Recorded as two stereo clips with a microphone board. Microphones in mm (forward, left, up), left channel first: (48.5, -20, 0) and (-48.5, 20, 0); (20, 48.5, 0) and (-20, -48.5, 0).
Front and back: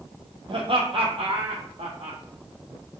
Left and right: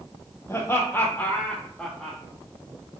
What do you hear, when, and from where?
0.5 s laughter: 130° left, 3 m; by 2.2 s 155° left, 3.5 m